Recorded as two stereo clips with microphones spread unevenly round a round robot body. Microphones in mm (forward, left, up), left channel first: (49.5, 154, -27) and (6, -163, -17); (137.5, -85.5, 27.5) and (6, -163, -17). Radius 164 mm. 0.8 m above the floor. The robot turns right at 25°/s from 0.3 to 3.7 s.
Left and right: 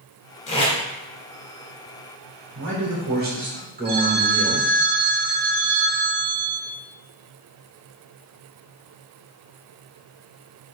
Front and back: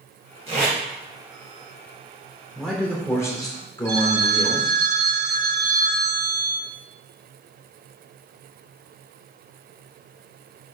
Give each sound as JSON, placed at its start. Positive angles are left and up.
{"t": 0.5, "sound": "tape being pulled", "azimuth_deg": 150, "distance_m": 2.5}
{"t": 2.5, "sound": "a man speaking", "azimuth_deg": -65, "distance_m": 3.0}
{"t": 3.9, "sound": "a phone ringing", "azimuth_deg": -160, "distance_m": 2.0}